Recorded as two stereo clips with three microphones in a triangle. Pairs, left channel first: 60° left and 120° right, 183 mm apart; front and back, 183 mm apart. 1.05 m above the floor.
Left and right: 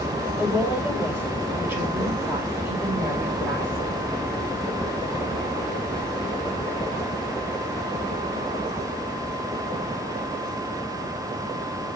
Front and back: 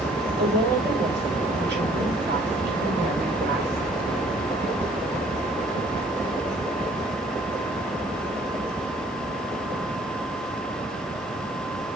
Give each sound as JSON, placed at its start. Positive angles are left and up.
{"t": 0.4, "sound": "a woman speaking", "azimuth_deg": 160, "distance_m": 5.5}